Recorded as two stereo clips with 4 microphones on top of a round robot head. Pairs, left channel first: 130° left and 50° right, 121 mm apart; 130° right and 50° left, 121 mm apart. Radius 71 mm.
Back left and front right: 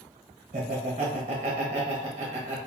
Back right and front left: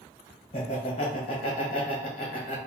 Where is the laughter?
90° right, 1.1 m.